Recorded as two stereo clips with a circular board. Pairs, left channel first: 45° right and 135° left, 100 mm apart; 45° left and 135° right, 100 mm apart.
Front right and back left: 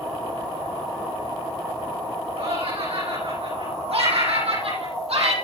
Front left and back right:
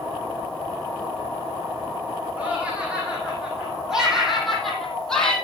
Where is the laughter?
145° left, 9 m; by 5.3 s 125° left, 5 m.